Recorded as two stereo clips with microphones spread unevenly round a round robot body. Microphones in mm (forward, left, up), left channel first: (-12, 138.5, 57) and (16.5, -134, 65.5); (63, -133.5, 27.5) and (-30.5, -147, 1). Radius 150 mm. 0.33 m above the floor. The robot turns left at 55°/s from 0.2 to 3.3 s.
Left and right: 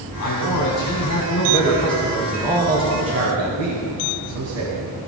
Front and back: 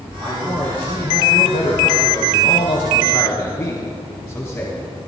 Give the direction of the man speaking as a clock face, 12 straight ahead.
8 o'clock.